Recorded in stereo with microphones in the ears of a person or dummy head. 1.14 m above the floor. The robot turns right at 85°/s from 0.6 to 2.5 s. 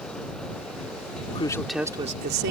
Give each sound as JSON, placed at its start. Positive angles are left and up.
{"t": 1.3, "sound": "a man speaking", "azimuth_deg": 140}